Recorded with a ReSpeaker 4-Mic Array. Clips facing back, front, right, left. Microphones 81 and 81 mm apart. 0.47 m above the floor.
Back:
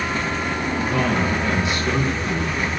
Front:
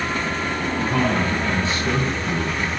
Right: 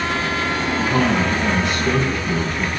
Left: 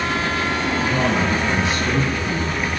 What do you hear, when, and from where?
0.8 s a man speaking: 55° right, 4 m